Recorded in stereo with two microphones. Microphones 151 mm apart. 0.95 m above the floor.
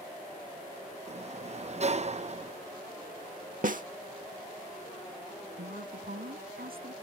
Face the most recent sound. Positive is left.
turn(degrees=-80)